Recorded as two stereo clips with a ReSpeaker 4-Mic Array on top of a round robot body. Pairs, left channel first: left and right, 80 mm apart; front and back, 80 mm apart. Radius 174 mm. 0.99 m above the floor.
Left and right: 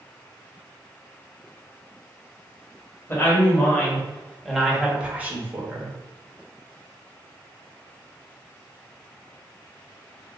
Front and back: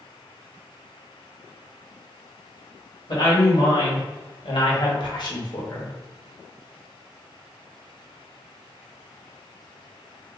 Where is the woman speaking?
30° left, 1.6 m; by 6.0 s 45° right, 1.2 m.